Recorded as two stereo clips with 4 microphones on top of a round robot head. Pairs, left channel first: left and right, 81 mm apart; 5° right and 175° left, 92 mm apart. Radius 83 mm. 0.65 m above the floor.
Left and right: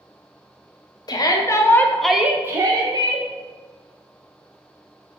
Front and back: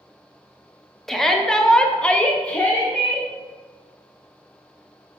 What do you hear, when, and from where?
1.1 s a shout: 80° left, 0.8 m; by 3.3 s 85° right, 0.9 m